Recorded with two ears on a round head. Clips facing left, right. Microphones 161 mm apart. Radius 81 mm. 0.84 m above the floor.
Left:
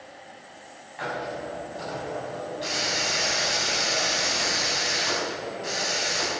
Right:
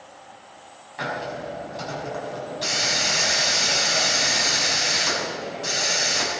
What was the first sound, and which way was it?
A hiss, 55° right (ahead or behind).